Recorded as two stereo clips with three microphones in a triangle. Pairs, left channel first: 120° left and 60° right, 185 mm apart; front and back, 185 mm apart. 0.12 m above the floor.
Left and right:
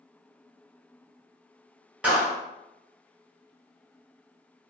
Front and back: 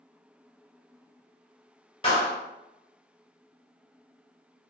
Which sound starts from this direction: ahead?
A clap, at 2.0 s.